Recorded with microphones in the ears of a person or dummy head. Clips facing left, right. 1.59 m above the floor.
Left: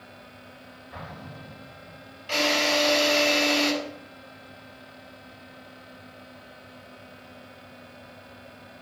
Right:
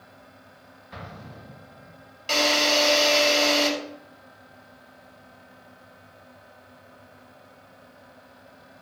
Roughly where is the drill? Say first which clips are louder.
Right 1 dB; right.